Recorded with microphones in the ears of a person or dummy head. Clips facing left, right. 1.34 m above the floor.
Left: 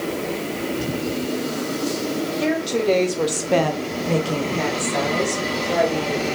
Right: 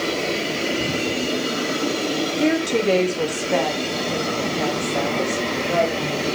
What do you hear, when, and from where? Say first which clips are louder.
2.4 s a woman speaking: right 3 dB; 35° right (ahead or behind), 1.0 m; by 6.2 s 75° left (ahead or behind), 2.5 m